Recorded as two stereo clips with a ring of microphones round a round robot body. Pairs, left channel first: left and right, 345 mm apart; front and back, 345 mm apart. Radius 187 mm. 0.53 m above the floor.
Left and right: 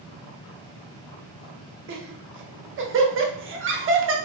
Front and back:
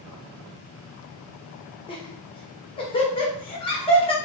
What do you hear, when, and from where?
1.9 s laughter: 65° right, 0.9 m